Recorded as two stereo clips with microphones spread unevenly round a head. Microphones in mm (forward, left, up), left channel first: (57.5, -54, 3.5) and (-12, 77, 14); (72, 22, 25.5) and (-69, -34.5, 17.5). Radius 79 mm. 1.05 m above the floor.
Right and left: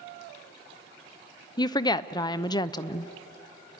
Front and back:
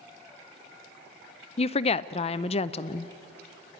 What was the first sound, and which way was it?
A woman speaking, 15° right.